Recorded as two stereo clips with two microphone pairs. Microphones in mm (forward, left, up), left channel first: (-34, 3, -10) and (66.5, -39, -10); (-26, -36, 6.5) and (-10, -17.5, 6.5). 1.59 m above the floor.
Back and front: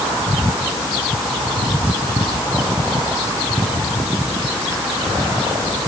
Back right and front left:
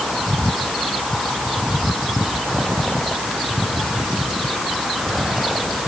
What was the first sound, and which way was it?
Only background noise.